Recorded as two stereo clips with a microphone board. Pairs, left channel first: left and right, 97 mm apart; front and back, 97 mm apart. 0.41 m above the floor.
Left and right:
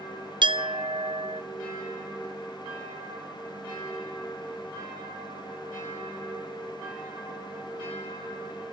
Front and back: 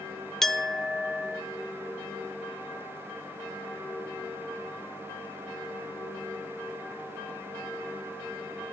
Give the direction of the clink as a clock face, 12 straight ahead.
3 o'clock.